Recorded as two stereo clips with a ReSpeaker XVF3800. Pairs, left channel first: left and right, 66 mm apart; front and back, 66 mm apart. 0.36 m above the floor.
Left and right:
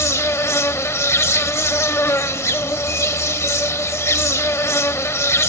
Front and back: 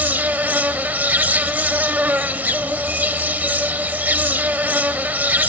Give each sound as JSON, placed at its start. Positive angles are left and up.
{"t": 0.0, "sound": "an insect", "azimuth_deg": 125, "distance_m": 0.8}